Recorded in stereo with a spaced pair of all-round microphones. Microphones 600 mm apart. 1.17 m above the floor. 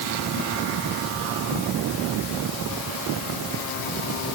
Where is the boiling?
I don't hear boiling.